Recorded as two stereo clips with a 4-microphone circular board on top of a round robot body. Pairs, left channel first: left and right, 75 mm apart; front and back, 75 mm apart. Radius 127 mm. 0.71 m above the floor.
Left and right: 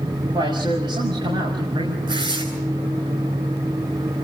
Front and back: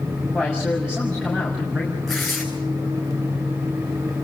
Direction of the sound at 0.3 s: 100° right.